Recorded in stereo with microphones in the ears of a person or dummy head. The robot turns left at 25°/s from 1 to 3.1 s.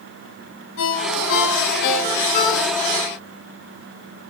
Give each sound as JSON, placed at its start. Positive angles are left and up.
{"t": 0.8, "sound": "a ringtone", "side_deg": 75, "distance_m": 8.0}